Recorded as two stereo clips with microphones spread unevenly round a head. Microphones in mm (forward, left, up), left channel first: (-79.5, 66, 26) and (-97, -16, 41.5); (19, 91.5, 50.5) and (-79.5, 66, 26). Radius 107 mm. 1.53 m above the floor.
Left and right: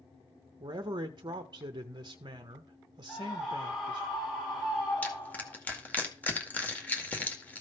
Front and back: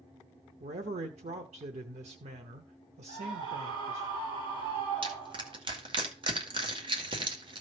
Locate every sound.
0.6 s a man speaking: 140° right, 0.7 m
3.1 s a scream: 165° left, 5 m
5.0 s crushing: 155° left, 2 m